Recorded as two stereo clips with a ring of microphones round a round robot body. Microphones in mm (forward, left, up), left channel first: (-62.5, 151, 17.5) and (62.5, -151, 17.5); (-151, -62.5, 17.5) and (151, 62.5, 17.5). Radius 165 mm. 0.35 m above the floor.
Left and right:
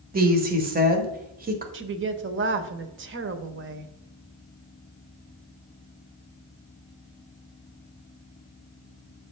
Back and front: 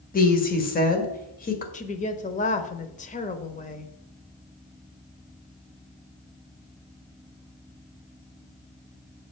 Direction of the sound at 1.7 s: 100° right.